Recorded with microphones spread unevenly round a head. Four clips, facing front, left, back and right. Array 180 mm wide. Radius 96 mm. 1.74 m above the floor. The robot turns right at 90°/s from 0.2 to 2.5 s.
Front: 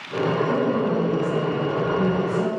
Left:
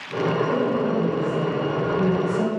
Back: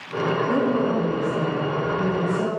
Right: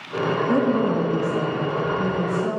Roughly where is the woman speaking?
Right.